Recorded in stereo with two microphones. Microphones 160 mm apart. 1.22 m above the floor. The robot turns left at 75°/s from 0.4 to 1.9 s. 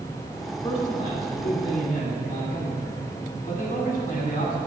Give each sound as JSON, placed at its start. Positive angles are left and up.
{"t": 0.6, "sound": "a man speaking", "azimuth_deg": 150, "distance_m": 2.0}